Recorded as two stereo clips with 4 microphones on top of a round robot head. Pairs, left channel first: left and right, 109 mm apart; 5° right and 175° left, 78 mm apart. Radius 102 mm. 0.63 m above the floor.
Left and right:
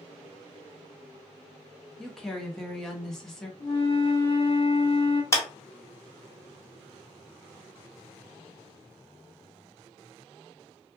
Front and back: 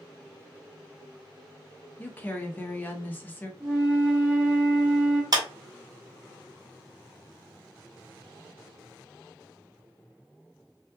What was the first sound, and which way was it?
A woman speaking, 15° left.